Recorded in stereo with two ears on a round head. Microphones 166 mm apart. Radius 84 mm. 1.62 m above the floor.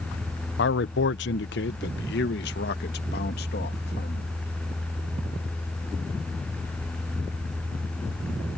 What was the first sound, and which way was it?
A man speaking, 70° left (ahead or behind).